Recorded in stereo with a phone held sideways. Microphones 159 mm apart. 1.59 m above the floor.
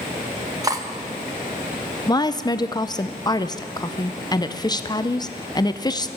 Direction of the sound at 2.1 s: 25° left (ahead or behind).